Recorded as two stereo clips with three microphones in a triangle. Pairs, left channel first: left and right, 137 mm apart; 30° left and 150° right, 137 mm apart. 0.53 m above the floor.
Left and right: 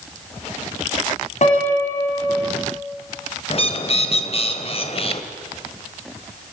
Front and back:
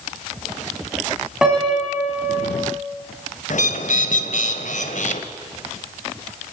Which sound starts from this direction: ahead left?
A bird, at 3.5 s.